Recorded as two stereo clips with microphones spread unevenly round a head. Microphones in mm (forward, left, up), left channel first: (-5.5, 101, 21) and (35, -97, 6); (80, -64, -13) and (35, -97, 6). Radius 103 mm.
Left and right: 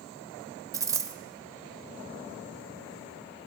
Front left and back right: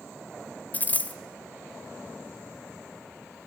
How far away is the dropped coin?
About 1.0 m.